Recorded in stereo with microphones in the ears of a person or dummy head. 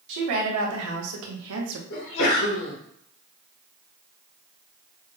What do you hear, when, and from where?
0.1 s a woman speaking: 65° right (ahead or behind), 1.8 m; by 1.8 s 75° right (ahead or behind), 1.2 m
1.9 s a sneeze: 80° left, 2.5 m